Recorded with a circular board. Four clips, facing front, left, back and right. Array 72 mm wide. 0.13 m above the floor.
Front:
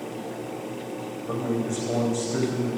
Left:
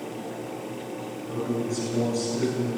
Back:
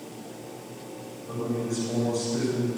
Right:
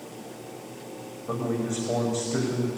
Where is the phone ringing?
No phone ringing in this recording.